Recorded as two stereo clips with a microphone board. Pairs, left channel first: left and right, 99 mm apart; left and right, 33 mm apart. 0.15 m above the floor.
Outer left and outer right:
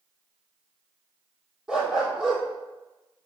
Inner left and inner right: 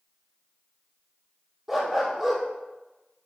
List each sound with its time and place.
1.7 s a dog barking: 5° right (ahead or behind), 1.9 m